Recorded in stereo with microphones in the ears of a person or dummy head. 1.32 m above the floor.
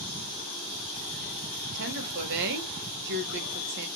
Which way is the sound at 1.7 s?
60° right (ahead or behind).